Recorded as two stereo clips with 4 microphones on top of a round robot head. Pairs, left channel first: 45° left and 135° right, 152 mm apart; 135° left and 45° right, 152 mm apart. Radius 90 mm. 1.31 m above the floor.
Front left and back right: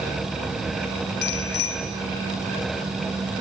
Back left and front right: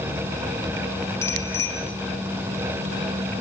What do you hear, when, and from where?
1.2 s a bicycle bell: 60° left, 5.5 m